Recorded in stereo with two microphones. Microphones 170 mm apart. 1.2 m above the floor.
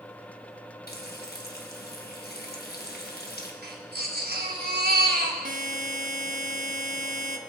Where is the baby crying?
75° right (ahead or behind), 3 m.